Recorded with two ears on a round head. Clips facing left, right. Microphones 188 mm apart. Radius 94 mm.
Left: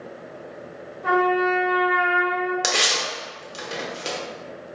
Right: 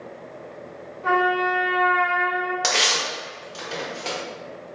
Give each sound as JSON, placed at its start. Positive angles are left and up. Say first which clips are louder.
{"t": 1.0, "sound": "a trumpet", "louder": "left 2 dB", "side_deg": 20, "distance_m": 1.4}
{"t": 2.6, "sound": "tearing paper", "louder": "even", "side_deg": 20, "distance_m": 0.9}